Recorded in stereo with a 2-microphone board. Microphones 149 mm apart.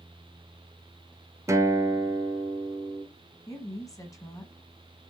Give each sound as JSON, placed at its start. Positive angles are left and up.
{"t": 1.5, "sound": "a guitar", "side_deg": -20, "distance_m": 0.8}
{"t": 3.5, "sound": "a woman speaking", "side_deg": 25, "distance_m": 1.1}